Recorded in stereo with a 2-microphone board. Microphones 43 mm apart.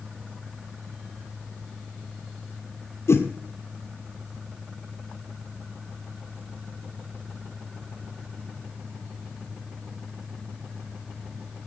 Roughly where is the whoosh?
Left.